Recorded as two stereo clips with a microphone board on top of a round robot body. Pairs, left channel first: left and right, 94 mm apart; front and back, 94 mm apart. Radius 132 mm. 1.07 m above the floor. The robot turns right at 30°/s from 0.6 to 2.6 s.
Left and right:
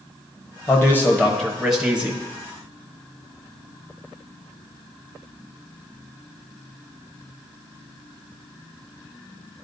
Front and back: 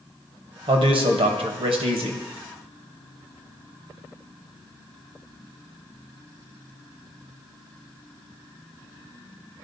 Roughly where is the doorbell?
I don't hear a doorbell.